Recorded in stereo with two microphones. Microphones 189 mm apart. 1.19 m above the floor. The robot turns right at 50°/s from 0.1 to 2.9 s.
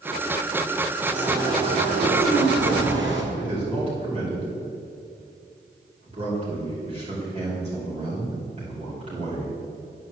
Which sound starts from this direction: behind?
A bird, at 1.1 s.